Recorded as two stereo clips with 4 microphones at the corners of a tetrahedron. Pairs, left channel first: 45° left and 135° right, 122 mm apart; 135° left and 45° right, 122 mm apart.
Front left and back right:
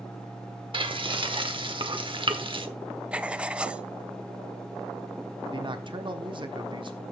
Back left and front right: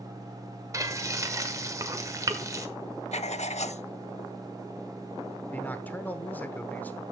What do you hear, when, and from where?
0.7 s frying: 100° right, 1.1 m
3.1 s writing: 145° left, 0.5 m
5.5 s a man speaking: 155° right, 1.1 m